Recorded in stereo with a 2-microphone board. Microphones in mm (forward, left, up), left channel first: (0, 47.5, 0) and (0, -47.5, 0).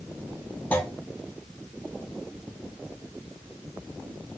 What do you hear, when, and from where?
0.7 s a clunk: 15° left (ahead or behind), 0.6 m